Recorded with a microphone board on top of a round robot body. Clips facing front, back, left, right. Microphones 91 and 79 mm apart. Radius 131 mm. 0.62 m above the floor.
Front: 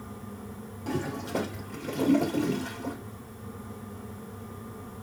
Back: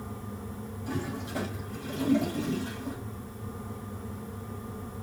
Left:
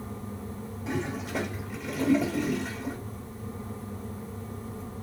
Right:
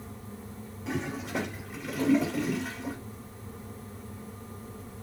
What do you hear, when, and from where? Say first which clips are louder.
0.9 s a toilet flushing: front 4 dB, left 1 dB; straight ahead, 1.5 m